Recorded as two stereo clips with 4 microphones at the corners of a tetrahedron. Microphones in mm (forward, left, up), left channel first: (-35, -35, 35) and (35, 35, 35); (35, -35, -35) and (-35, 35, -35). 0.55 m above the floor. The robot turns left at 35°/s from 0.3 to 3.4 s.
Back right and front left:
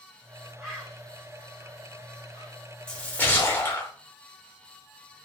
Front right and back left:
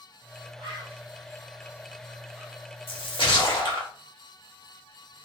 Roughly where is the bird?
Behind left.